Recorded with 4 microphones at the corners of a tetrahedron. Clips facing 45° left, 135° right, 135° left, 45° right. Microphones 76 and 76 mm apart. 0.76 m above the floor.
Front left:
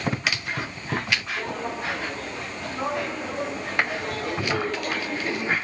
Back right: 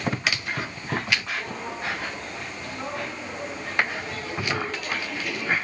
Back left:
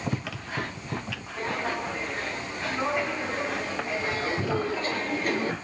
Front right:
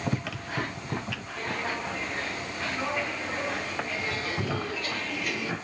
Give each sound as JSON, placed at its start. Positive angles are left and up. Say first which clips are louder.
{"t": 1.4, "sound": "footsteps", "louder": "front left 3 dB, back left 3 dB", "azimuth_deg": 60, "distance_m": 5.5}